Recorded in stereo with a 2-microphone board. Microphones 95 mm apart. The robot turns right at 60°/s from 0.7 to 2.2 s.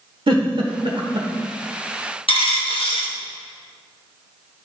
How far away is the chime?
No chime in this recording.